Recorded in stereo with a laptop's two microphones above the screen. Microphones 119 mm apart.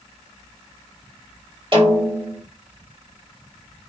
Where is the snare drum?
50° right (ahead or behind), 1.4 m.